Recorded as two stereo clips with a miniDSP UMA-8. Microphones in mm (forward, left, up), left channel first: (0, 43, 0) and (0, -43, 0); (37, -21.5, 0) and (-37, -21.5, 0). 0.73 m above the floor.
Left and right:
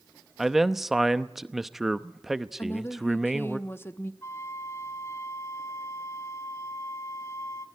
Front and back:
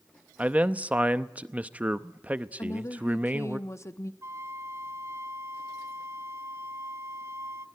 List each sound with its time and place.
0.4 s a man speaking: 170° right, 0.7 m
2.6 s a woman speaking: 35° left, 0.8 m
4.2 s a flute: 140° left, 1.1 m